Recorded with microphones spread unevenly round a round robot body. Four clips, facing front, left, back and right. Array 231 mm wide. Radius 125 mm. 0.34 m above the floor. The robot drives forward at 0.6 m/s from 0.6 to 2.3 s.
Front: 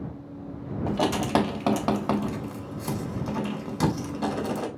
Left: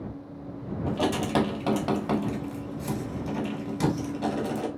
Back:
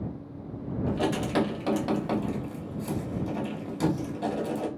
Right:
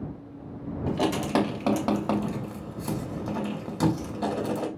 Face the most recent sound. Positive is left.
turn(degrees=-25)